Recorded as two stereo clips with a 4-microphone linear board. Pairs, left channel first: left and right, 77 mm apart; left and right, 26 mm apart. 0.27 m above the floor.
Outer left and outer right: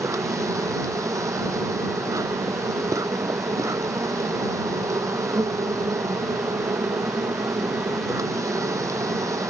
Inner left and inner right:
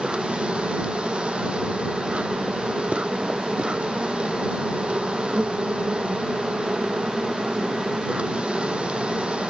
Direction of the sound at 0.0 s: 45° right (ahead or behind).